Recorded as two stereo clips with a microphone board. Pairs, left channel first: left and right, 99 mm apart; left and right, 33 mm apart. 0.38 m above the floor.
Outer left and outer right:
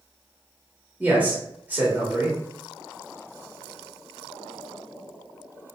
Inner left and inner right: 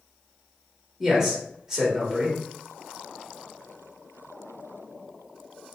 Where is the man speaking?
15° right (ahead or behind), 1.1 m.